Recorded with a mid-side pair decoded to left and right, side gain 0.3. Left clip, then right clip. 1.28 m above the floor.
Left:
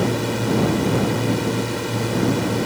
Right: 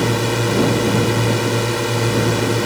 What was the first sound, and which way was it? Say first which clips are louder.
A drone: right 4 dB; 65° right.